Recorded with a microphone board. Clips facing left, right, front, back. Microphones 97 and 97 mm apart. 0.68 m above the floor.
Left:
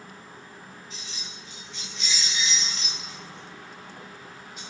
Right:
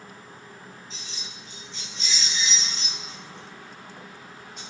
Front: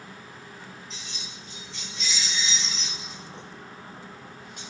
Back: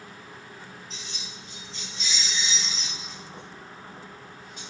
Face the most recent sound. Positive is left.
turn(degrees=5)